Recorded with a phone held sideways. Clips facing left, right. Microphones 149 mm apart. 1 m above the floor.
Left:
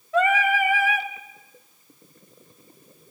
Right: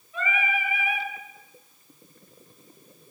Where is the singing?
80° left, 2 m.